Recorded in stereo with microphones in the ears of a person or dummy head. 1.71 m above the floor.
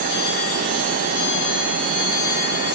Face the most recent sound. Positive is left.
No sound to turn to.